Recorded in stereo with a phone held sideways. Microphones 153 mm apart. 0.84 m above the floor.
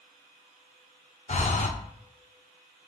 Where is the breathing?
50° left (ahead or behind), 0.6 m.